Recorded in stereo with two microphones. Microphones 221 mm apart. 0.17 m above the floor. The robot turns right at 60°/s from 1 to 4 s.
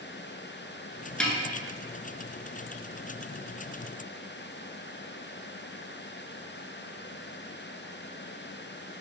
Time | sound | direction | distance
1.2 | a snare drum | 5° left (ahead or behind) | 0.6 m